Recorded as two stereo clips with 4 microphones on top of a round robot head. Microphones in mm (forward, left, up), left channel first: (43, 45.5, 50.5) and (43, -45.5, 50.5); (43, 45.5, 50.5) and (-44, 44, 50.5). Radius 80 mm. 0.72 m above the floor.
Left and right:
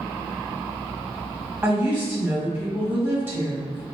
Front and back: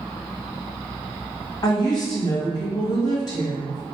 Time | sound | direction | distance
1.6 | a woman speaking | 30° right | 1.4 m